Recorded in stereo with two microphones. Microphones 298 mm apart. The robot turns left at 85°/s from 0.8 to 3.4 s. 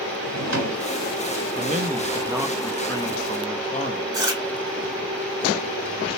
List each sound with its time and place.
0.2 s a drawer: 60° right (ahead or behind), 1.1 m
1.6 s a man speaking: 25° right (ahead or behind), 0.7 m; by 4.0 s 25° left (ahead or behind), 0.7 m
4.1 s chewing: 15° right (ahead or behind), 2.0 m